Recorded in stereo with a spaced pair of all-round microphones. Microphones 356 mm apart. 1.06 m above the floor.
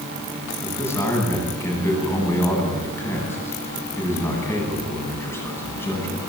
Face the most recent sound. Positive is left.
turn(degrees=5)  # may be behind; listen again after turning